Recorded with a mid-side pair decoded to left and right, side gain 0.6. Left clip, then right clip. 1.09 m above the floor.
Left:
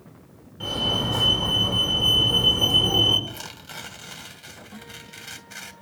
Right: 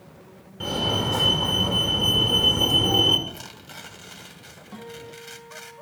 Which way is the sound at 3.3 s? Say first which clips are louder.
Left 2 dB; 20° left.